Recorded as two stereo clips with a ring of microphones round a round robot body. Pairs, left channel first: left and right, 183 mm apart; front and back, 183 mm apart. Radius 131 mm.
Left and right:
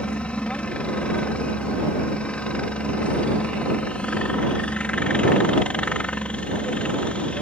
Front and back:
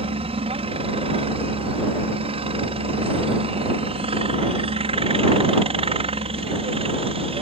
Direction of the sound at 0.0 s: 170° left.